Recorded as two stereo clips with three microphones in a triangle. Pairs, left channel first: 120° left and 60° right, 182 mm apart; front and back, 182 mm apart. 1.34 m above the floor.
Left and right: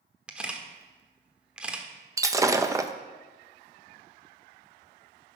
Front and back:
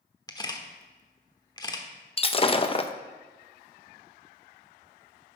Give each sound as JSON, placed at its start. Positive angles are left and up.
{"t": 0.3, "sound": "a camera shutter", "azimuth_deg": 15, "distance_m": 1.0}
{"t": 2.2, "sound": "breaking glass", "azimuth_deg": 0, "distance_m": 0.6}